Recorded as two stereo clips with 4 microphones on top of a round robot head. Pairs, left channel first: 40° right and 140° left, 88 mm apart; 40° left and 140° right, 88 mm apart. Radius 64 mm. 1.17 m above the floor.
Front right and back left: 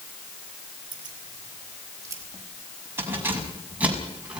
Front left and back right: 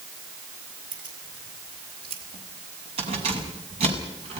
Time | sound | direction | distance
0.9 | keys jangling | 175° right | 6.5 m